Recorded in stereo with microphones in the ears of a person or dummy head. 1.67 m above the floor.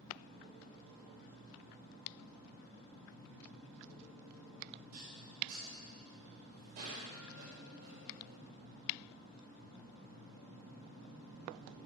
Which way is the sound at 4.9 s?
50° right (ahead or behind).